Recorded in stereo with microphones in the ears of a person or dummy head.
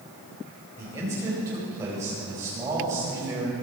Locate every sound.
0.8 s a man speaking: 15° right (ahead or behind), 5.5 m